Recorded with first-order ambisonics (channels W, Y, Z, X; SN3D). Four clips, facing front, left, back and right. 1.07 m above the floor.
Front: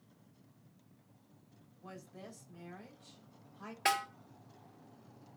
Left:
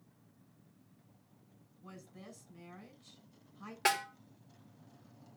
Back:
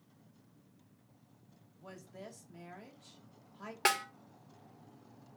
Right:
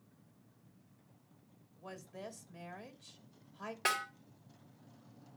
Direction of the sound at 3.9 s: 170° left.